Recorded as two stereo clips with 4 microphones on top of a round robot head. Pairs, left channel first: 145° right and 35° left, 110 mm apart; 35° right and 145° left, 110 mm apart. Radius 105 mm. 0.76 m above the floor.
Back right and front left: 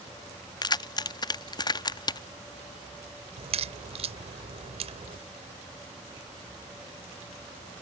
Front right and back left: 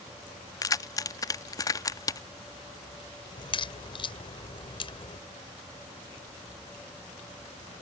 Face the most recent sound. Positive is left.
turn(degrees=5)